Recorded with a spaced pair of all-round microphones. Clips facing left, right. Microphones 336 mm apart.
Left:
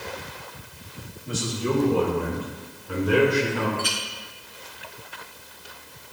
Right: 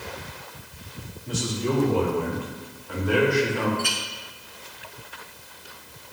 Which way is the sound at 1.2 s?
10° left (ahead or behind).